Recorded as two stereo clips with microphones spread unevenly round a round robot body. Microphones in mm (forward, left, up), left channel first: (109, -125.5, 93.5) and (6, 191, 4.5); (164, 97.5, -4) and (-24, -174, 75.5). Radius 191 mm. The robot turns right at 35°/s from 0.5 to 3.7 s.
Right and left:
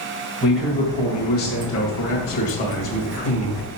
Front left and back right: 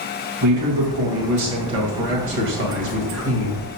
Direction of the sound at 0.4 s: 170° right.